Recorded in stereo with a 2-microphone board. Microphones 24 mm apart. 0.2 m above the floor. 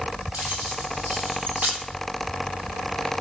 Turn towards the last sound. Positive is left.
turn(degrees=-75)  # may be behind; listen again after turning